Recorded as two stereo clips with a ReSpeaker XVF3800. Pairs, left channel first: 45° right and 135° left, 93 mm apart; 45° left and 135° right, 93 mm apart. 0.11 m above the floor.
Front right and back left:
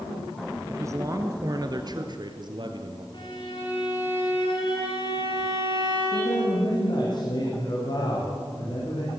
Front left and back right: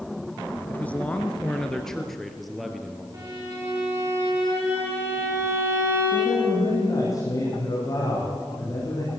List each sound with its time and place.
0.7 s a man speaking: 105° left, 1.6 m; by 3.0 s 140° left, 2.5 m
3.1 s a violin: 80° right, 9.5 m
6.1 s a man speaking: 5° right, 6 m